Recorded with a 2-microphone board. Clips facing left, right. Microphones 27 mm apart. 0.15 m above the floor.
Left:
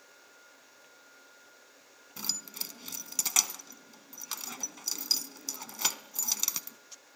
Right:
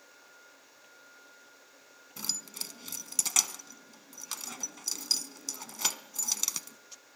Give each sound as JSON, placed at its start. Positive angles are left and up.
{"t": 2.2, "sound": "keys jangling", "side_deg": 5, "distance_m": 0.7}